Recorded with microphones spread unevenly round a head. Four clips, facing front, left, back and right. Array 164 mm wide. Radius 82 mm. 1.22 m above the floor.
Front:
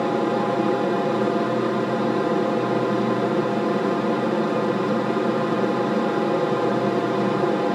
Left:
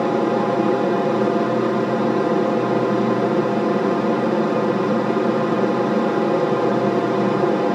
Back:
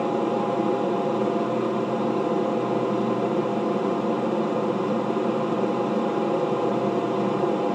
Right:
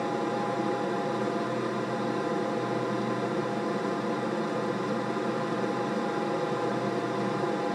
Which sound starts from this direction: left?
An aircraft, at 0.0 s.